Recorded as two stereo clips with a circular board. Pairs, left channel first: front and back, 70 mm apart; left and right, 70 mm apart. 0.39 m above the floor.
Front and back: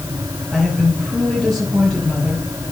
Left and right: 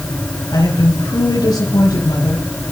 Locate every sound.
0.5 s a woman speaking: 90° left, 7.5 m